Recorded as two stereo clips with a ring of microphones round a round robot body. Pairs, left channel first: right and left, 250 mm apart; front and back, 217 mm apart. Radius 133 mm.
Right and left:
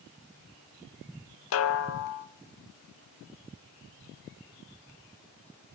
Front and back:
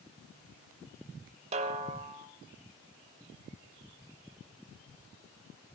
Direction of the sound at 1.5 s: 120° right.